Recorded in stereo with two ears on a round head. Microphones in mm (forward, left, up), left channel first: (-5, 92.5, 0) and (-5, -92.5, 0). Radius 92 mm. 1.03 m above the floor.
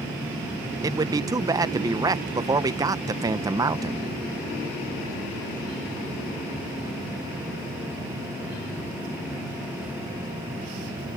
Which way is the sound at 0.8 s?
15° right (ahead or behind).